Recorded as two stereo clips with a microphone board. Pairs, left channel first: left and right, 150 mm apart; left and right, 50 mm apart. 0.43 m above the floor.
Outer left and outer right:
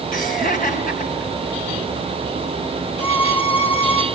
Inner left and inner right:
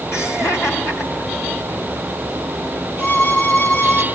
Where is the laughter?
70° left (ahead or behind), 5 m.